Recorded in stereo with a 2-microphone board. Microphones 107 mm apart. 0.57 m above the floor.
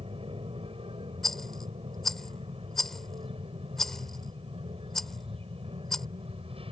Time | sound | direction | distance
0.0 | an aircraft | 60° right (ahead or behind) | ?
1.2 | a rattle | 5° left (ahead or behind) | ?